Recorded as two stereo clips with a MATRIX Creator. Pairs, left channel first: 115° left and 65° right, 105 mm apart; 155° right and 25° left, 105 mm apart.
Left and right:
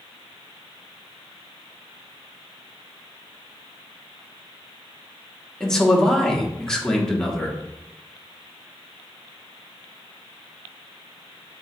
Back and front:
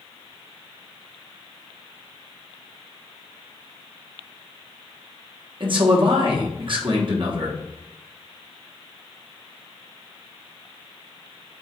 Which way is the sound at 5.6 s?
30° left.